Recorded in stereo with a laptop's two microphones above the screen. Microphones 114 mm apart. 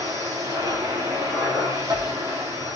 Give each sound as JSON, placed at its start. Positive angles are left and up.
{"t": 0.0, "sound": "a machine running", "side_deg": -30, "distance_m": 2.5}